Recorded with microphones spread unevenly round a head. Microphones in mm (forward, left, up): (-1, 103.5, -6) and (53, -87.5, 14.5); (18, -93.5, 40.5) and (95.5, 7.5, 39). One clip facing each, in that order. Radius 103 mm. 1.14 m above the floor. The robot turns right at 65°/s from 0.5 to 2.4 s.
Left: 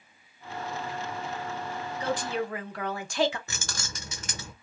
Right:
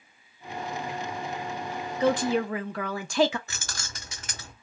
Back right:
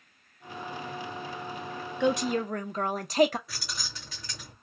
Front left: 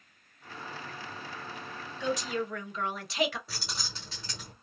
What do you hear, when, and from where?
2.0 s a woman speaking: 105° right, 0.8 m; by 3.4 s 80° right, 0.8 m
3.5 s keys jangling: 125° left, 0.7 m